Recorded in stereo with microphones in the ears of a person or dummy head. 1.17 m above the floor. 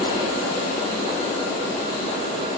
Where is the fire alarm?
I don't hear a fire alarm.